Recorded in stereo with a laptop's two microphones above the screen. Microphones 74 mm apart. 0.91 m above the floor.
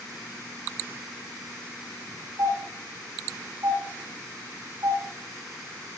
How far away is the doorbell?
About 5.5 m.